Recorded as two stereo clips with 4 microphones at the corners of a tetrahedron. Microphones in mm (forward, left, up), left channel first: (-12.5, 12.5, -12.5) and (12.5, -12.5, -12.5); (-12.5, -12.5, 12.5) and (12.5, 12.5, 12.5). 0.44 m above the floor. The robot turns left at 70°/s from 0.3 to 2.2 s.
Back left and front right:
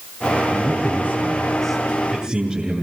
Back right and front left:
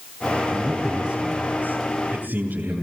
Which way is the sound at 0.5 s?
145° left.